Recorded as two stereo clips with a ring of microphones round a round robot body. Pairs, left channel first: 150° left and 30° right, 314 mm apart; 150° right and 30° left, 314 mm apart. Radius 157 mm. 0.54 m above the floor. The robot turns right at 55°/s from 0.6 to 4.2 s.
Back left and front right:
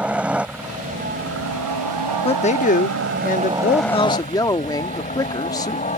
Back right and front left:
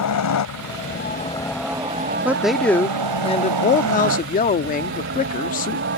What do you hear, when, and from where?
0.0 s a helicopter: 115° right; by 6.0 s 80° left
2.2 s a man speaking: 105° left; by 5.8 s 145° right